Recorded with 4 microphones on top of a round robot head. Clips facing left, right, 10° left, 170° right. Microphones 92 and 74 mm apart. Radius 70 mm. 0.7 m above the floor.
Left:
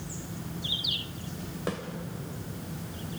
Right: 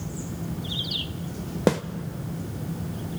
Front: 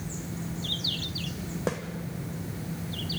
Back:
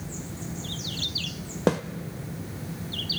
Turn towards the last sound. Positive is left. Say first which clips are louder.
# right 12 dB, back 8 dB
turn(degrees=-110)